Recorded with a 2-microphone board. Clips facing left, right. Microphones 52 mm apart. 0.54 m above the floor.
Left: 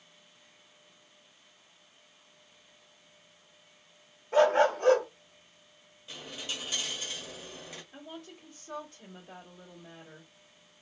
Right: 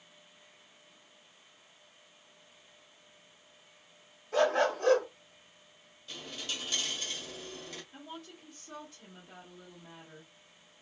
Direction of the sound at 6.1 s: 15° left (ahead or behind).